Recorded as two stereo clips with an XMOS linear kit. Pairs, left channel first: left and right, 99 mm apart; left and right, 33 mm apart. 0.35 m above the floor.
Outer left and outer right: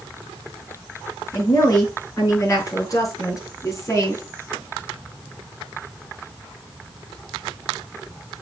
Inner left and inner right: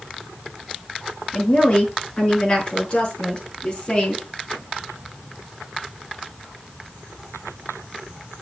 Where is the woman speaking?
40° left (ahead or behind), 6 m; by 4.2 s 30° left (ahead or behind), 4 m.